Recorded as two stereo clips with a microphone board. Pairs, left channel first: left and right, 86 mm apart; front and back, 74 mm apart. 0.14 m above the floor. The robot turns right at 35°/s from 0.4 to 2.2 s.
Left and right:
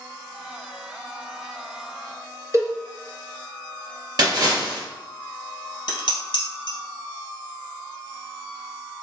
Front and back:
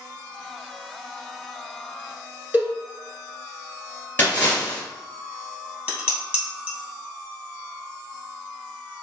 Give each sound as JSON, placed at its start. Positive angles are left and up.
{"t": 2.5, "sound": "a cowbell", "azimuth_deg": -120, "distance_m": 1.6}
{"t": 4.2, "sound": "a splash", "azimuth_deg": -60, "distance_m": 2.5}
{"t": 5.9, "sound": "dishes clattering", "azimuth_deg": 115, "distance_m": 2.5}